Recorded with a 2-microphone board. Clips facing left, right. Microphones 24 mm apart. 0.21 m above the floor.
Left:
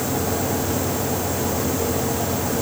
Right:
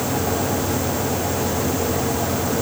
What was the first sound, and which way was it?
Only background noise.